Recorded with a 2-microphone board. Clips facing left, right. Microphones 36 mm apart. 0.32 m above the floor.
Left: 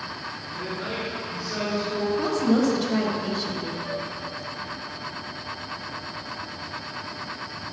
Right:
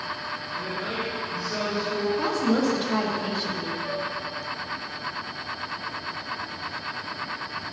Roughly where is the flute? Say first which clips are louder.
Right 1 dB; right.